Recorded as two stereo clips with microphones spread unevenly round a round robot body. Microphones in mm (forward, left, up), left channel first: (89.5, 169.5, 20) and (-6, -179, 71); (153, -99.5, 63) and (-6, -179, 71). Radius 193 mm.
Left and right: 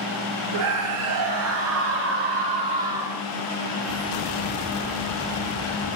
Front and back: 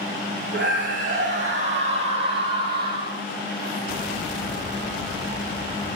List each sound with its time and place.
0.5 s a scream: 145° right, 4 m; by 3.2 s 160° left, 2.5 m